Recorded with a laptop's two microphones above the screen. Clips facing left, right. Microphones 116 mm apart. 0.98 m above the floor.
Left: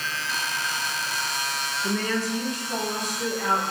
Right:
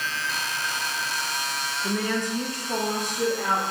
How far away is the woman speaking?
About 0.6 m.